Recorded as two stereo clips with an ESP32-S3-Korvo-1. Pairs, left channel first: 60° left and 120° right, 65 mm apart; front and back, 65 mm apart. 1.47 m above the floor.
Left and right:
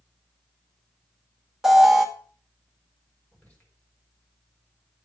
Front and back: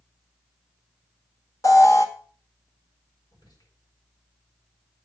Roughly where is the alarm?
Ahead right.